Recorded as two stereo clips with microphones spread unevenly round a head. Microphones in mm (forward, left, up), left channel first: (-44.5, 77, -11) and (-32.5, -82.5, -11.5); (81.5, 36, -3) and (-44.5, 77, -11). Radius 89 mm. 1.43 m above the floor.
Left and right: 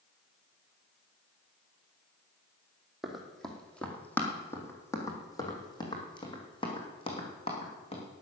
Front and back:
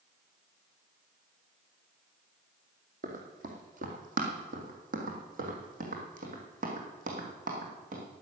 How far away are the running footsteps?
About 2.5 m.